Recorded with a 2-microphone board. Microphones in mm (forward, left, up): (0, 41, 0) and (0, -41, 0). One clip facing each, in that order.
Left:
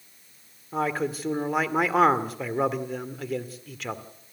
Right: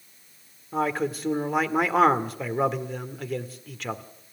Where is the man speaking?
Centre (ahead or behind), 1.7 m.